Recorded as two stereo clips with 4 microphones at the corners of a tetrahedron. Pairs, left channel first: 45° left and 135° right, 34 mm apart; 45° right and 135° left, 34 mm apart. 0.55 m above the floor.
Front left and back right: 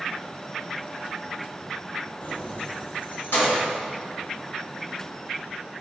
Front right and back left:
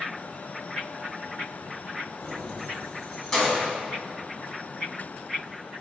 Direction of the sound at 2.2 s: 20° left.